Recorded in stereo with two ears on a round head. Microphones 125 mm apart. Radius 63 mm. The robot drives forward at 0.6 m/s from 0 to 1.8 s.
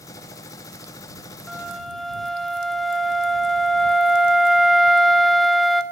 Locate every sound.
1.5 s a flute: centre (ahead or behind), 2 m